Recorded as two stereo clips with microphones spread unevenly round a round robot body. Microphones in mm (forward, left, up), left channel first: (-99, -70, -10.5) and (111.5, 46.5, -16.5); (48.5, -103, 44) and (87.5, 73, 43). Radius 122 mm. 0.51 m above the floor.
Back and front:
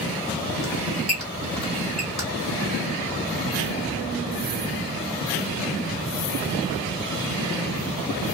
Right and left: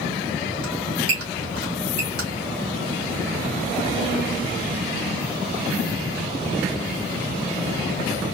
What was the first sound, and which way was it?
A squeak, 120° left.